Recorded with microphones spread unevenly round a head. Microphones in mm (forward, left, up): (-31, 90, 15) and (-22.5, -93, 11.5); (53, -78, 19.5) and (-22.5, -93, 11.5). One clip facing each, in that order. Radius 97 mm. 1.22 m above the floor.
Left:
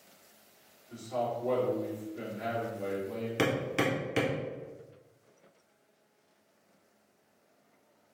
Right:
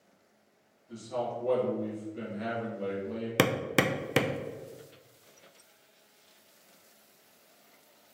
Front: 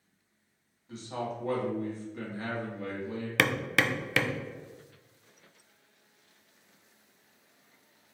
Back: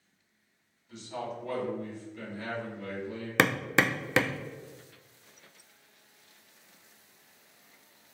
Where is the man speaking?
40° right, 1.7 m.